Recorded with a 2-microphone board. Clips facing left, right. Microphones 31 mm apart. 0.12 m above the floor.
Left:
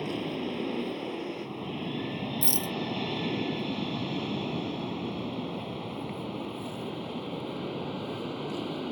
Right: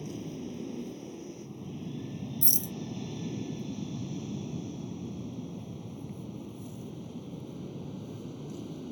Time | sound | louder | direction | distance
0.0 | an aircraft | left 7 dB | 55° left (ahead or behind) | ?
2.4 | a rattle | left 3 dB | 45° left (ahead or behind) | ?